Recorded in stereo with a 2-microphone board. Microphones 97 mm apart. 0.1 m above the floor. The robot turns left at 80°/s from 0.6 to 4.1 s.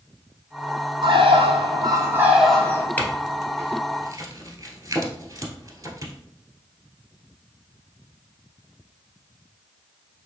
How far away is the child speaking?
No child speaking in this recording.